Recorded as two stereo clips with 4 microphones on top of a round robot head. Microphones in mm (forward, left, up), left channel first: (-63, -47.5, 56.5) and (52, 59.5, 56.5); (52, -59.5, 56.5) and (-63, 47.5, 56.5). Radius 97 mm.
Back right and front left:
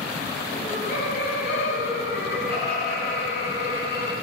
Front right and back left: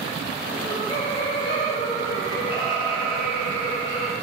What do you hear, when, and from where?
0.5 s laughter: 110° right, 0.7 m